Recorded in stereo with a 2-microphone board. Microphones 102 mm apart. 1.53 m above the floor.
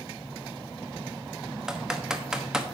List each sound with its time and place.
1.7 s typing on a keyboard: 5° right (ahead or behind), 0.9 m